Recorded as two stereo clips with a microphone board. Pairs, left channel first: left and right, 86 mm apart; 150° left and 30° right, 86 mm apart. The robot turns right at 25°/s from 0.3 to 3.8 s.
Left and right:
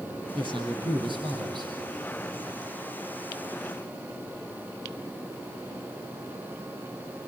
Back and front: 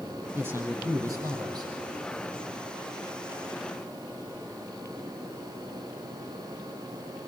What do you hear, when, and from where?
0.3 s a man speaking: 95° right, 5 m; by 1.7 s 60° right, 5 m